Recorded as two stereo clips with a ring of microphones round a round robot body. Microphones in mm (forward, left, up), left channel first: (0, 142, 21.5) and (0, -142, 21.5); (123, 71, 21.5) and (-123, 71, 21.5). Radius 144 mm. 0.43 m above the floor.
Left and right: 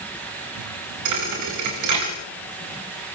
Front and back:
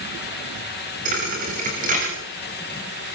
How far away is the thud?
About 7 m.